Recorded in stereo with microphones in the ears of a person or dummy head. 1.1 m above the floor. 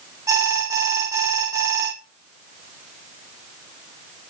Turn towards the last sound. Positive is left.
turn(degrees=-20)  # may be behind; listen again after turning